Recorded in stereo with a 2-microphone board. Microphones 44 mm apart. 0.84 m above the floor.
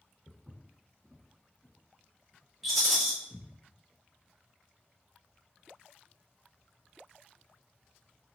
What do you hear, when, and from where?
0.3 s footsteps: 25° right (ahead or behind), 1.2 m; by 3.5 s 60° left (ahead or behind), 1.4 m
2.6 s a rattle: centre (ahead or behind), 1.7 m